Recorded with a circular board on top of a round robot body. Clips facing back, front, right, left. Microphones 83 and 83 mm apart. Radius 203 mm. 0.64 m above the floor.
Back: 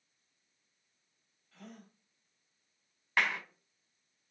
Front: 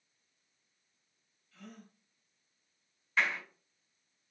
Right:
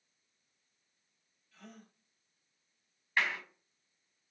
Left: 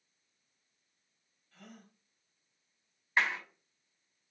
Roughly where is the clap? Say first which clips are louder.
Even, left 2 dB; behind left.